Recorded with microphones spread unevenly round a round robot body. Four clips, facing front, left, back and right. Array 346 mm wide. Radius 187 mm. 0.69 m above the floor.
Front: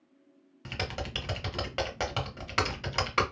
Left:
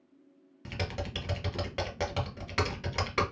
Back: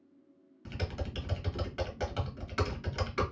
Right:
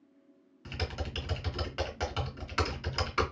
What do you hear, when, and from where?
0.7 s typing on a keyboard: 25° left, 1.4 m